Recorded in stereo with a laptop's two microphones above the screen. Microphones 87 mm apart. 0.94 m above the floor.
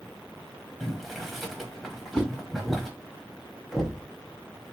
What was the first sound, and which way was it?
Boiling, centre (ahead or behind).